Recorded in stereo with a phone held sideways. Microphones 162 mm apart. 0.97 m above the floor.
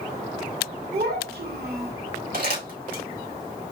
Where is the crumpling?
65° right (ahead or behind), 3 m.